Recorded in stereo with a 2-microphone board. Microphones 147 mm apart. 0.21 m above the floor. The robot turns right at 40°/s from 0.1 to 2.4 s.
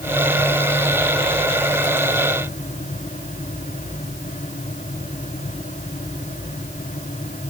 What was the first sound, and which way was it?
Only background noise.